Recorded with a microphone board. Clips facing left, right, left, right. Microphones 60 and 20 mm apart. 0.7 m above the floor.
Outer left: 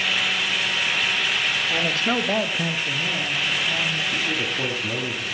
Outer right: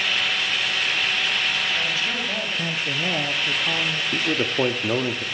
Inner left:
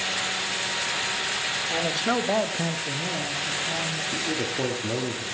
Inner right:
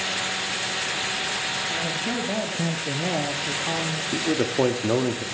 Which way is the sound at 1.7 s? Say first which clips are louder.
Outer left 3 dB, inner left 2 dB; 65° left (ahead or behind).